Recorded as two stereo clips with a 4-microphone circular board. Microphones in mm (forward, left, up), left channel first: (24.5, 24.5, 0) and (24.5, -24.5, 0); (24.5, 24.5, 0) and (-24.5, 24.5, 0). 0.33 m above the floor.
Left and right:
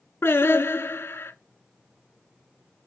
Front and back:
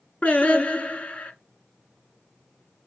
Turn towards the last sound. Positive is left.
turn(degrees=60)